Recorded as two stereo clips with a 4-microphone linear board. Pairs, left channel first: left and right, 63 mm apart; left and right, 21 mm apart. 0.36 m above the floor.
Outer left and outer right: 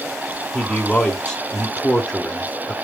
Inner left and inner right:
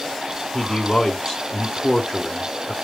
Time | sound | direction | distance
0.5 | a man speaking | 15° left (ahead or behind) | 0.9 m